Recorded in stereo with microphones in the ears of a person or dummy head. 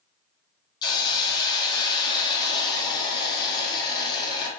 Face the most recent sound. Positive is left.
turn(degrees=25)  # may be behind; listen again after turning